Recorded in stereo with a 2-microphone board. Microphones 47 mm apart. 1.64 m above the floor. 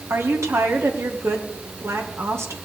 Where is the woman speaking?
70° right (ahead or behind), 1.9 m.